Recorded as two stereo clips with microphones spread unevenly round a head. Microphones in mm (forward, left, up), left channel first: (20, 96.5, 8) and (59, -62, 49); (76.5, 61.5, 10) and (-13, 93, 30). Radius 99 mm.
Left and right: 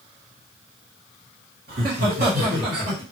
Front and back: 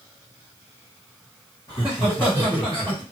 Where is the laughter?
90° right, 1.2 m; by 3.0 s 110° right, 1.8 m.